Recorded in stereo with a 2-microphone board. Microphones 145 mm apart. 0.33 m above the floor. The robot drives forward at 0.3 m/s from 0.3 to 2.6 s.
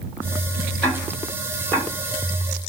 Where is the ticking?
10° left (ahead or behind), 1.1 m; by 1.9 s 5° left (ahead or behind), 1.3 m.